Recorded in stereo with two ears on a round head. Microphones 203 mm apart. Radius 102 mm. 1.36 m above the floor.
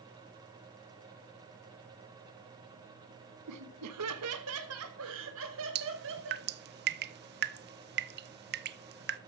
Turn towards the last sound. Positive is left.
turn(degrees=-45)  # may be behind; listen again after turning